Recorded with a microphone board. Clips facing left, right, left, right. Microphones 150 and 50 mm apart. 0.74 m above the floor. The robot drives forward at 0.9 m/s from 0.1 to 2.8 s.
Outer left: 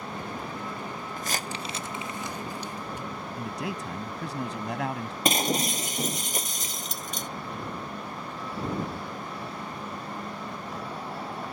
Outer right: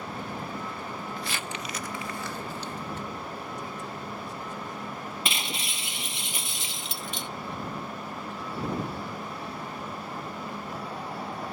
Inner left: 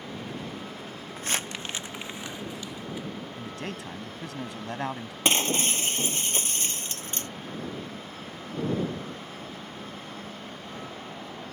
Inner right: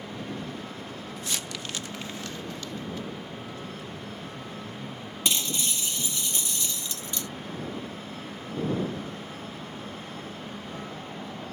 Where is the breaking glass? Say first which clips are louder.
Outer left 9 dB, inner left 5 dB; 40° left (ahead or behind).